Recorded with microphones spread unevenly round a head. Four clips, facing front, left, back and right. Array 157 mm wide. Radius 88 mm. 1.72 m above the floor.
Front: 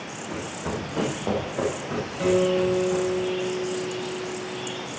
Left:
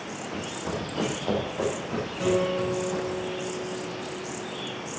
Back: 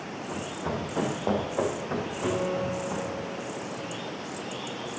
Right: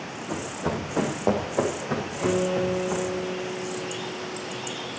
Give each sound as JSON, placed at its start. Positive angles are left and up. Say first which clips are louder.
{"t": 0.3, "sound": "running footsteps", "louder": "right 5 dB, front 2 dB", "azimuth_deg": -75, "distance_m": 3.5}
{"t": 2.2, "sound": "a guitar", "louder": "even, front 9 dB", "azimuth_deg": 0, "distance_m": 6.5}